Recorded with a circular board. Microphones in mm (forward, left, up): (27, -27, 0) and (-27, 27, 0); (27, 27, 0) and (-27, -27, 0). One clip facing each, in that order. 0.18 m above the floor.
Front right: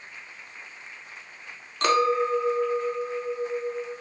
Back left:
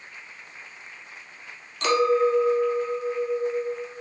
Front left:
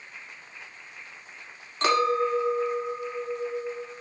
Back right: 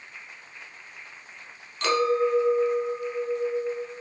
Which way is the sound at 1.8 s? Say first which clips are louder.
Back left 2 dB, even; 10° right.